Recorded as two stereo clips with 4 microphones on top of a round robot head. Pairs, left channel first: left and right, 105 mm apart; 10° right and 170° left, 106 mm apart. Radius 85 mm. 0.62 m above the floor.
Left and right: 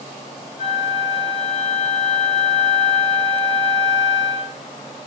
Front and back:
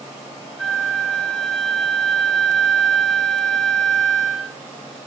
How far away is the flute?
About 2 m.